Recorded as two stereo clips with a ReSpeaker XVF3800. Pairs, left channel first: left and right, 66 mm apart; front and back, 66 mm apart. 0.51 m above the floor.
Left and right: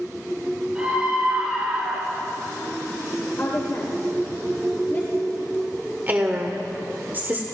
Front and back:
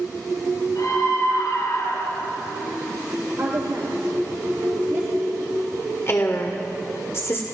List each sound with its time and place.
0.8 s a scream: 10° right, 7 m; by 2.3 s 5° right, 7 m
3.4 s a woman speaking: 140° left, 1.7 m
6.1 s a woman speaking: 35° right, 1.4 m